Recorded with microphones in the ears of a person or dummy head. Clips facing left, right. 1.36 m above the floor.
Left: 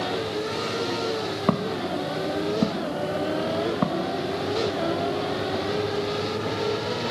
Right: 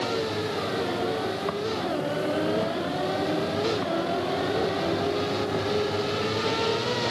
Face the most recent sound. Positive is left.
turn(degrees=80)